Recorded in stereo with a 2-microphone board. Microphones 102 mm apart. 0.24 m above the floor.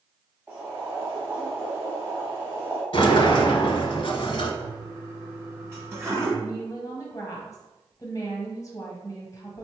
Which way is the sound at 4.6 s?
25° right (ahead or behind).